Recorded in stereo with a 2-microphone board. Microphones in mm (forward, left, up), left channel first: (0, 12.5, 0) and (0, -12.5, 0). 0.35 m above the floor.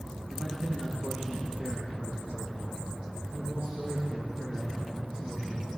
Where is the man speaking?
55° right (ahead or behind), 3 m; by 5.8 s 75° right (ahead or behind), 7 m.